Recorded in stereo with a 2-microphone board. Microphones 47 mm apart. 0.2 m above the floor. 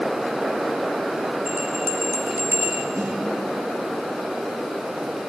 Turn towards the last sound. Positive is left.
turn(degrees=-55)  # may be behind; listen again after turning